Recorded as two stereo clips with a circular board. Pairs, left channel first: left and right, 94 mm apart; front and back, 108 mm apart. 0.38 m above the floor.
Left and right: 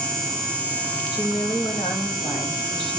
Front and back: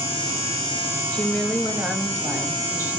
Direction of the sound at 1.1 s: 65° left.